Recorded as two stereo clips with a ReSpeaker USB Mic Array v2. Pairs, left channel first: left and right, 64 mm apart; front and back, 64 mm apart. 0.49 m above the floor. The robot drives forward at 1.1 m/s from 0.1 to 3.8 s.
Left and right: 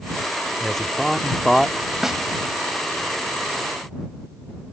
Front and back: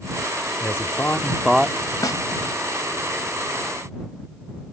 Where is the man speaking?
5° left; by 1.8 s 170° left.